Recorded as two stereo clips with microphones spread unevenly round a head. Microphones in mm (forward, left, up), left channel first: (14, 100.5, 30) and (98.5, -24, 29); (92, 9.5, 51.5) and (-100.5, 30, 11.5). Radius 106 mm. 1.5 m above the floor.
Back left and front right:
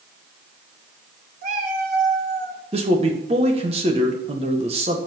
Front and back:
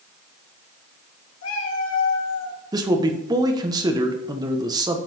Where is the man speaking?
115° right, 1.4 m.